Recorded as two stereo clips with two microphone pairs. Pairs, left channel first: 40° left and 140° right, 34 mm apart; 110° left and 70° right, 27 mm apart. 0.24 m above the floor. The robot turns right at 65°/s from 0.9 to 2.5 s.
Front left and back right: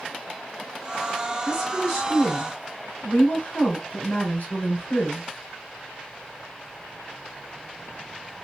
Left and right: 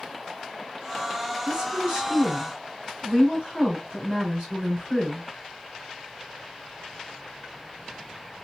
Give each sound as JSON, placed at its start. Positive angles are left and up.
{"t": 1.4, "sound": "a woman speaking", "azimuth_deg": -55, "distance_m": 3.0}